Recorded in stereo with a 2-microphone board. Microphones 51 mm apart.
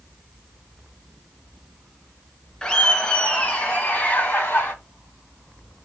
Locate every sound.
2.6 s laughter: 20° left (ahead or behind), 1.6 m; by 4.7 s 45° left (ahead or behind), 2.5 m